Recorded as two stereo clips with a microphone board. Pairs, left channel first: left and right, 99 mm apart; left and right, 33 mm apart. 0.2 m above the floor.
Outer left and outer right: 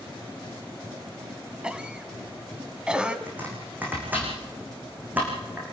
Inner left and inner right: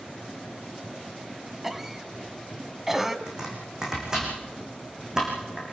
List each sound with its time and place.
1.6 s a cough: 10° right (ahead or behind), 1.3 m
3.3 s chopping: 20° right (ahead or behind), 6 m